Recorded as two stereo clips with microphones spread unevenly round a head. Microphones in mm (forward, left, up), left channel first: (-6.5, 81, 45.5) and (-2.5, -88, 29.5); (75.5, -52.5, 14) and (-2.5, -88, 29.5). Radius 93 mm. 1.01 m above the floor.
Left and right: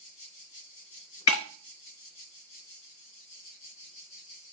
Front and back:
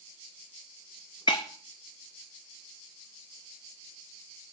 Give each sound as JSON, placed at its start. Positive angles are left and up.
{"t": 1.3, "sound": "breaking glass", "azimuth_deg": 95, "distance_m": 0.6}